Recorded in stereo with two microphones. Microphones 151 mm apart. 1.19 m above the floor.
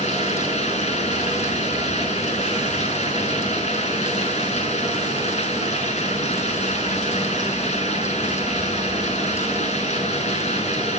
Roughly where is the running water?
Left.